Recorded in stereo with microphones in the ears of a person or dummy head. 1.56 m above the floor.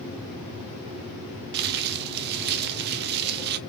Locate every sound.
1.5 s crumpling: 50° right (ahead or behind), 0.6 m